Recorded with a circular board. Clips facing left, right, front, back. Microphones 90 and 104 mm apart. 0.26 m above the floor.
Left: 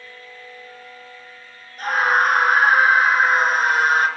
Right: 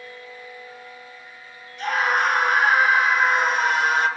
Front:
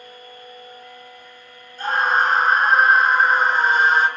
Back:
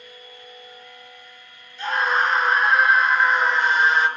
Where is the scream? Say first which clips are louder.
Left 3 dB, front 2 dB; 45° left, 3.5 m.